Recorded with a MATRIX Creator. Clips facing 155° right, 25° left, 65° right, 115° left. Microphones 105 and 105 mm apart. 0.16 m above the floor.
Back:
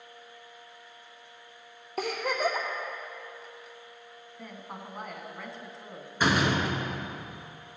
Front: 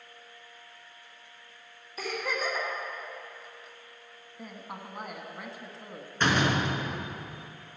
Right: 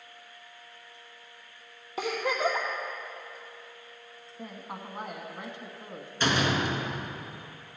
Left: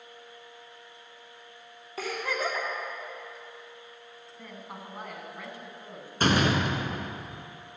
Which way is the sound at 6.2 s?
125° left.